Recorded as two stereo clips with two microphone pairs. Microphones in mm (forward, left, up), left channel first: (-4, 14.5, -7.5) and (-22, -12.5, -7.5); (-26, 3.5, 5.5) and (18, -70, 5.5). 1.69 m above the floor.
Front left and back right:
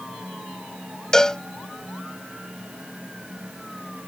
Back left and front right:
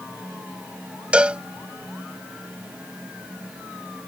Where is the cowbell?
5° left.